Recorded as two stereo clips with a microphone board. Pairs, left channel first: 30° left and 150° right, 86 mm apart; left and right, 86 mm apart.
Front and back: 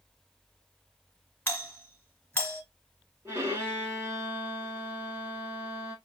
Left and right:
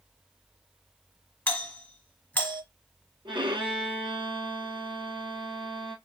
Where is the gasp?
No gasp in this recording.